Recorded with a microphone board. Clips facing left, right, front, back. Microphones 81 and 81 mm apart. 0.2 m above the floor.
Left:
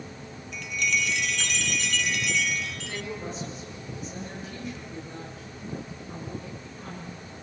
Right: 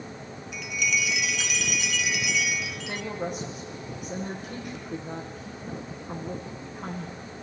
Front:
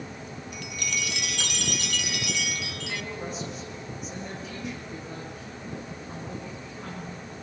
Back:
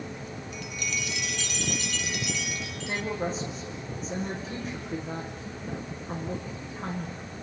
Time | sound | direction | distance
0.5 | a chime | 5° right | 0.6 m
2.9 | a woman speaking | 120° right | 9 m